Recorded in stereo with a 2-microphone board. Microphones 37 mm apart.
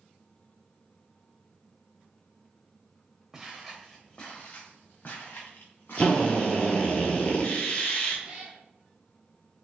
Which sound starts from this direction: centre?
Footsteps, at 3.3 s.